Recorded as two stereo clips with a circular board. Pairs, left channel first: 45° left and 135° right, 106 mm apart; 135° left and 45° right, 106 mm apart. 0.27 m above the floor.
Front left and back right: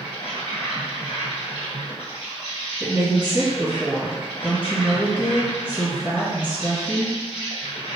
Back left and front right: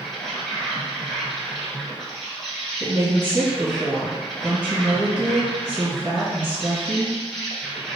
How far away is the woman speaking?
About 1.6 m.